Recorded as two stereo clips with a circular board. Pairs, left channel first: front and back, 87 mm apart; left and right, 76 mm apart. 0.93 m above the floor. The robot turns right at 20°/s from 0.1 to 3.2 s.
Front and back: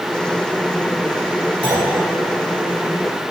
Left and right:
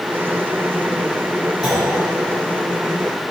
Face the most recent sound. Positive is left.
turn(degrees=-140)